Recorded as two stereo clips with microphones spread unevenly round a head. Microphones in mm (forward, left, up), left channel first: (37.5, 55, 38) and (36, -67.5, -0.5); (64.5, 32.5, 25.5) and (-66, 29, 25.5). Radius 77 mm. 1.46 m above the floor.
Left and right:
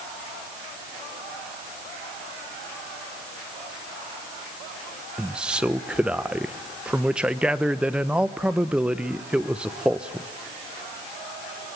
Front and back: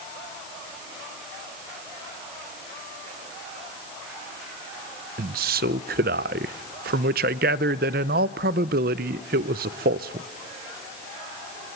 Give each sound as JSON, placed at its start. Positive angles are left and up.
{"t": 5.2, "sound": "a man speaking", "azimuth_deg": 175, "distance_m": 0.7}